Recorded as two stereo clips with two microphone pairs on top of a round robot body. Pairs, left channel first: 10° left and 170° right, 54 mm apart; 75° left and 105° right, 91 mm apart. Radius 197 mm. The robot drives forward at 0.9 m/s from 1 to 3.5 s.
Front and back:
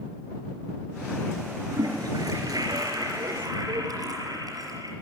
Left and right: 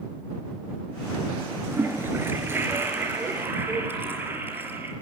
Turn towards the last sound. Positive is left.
turn(degrees=-170)